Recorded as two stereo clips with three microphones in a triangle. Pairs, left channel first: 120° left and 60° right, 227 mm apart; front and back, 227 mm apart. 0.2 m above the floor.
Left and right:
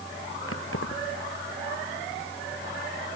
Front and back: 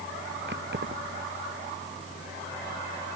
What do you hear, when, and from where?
0.5 s keys jangling: 140° left